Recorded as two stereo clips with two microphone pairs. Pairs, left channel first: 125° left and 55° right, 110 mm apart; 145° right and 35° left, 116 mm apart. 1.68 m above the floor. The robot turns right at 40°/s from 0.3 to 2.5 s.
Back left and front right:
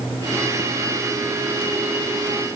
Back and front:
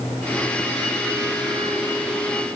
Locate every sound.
Only background noise.